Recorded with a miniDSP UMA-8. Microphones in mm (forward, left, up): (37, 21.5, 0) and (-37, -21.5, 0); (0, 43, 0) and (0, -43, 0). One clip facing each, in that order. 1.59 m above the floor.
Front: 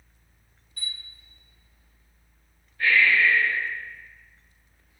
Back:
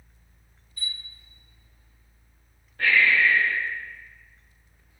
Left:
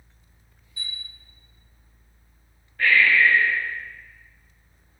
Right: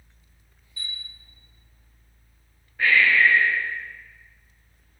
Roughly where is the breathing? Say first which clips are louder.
Even, even; behind.